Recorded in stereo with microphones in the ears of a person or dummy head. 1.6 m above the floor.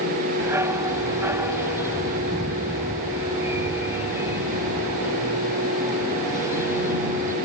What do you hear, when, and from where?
0.4 s a dog barking: 15° right (ahead or behind)